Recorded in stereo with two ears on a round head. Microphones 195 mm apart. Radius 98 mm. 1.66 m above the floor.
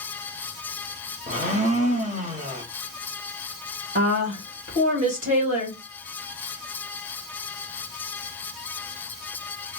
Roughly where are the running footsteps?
No running footsteps in this recording.